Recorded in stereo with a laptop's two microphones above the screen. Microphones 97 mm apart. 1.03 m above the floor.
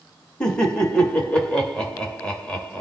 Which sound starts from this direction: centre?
Laughter, at 0.4 s.